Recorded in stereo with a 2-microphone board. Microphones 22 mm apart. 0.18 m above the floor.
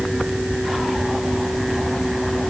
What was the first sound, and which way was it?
Only background noise.